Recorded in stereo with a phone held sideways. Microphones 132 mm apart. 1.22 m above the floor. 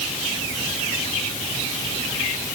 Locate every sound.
Only background noise.